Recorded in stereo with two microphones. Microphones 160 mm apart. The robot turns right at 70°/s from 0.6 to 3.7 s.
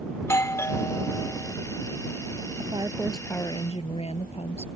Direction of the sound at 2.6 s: 40° right.